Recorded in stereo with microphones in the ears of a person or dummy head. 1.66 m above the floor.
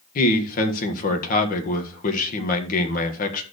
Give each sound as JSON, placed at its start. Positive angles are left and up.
{"t": 0.1, "sound": "a man speaking", "side_deg": 45, "distance_m": 1.6}